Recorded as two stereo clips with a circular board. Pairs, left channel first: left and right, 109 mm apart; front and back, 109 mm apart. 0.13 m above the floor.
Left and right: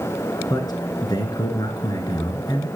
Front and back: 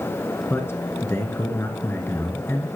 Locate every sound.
0.5 s a man speaking: 60° left, 1.5 m